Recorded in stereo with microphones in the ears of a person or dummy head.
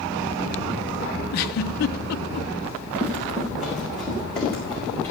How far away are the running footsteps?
About 5 m.